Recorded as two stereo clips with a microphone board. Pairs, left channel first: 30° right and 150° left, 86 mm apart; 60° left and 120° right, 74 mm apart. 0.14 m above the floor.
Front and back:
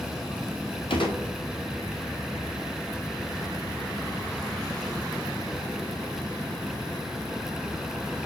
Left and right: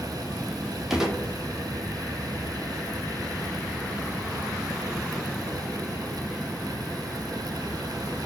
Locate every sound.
0.9 s a gunshot: 40° right, 0.8 m